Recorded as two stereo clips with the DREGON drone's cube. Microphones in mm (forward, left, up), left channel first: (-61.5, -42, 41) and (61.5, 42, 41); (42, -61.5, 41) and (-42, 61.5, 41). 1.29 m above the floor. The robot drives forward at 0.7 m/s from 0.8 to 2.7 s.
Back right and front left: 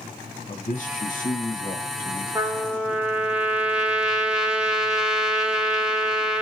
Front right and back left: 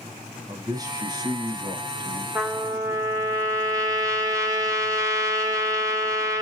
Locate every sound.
0.5 s a man speaking: 175° right, 0.9 m
2.4 s a trumpet: 75° left, 1.0 m; by 6.4 s 110° left, 1.0 m